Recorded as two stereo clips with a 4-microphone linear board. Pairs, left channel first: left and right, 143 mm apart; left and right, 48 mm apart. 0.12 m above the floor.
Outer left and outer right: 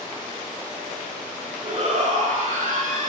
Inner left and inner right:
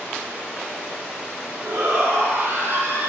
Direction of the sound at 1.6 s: 55° right (ahead or behind).